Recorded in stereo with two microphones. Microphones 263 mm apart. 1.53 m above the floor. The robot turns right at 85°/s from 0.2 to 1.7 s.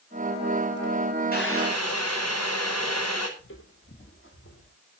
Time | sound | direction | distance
1.3 | boiling | 35° left | 6 m
3.4 | footsteps | 50° left (ahead or behind) | 3.5 m